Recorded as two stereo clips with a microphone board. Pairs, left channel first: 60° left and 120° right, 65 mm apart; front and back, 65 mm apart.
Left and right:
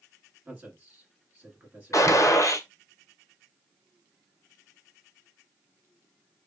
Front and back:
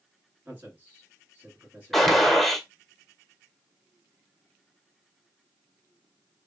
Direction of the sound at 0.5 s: 145° right.